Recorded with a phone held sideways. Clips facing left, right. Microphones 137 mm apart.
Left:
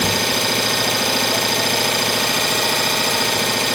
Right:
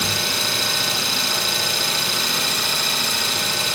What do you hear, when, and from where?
0.0 s an engine running: 65° left (ahead or behind), 0.7 m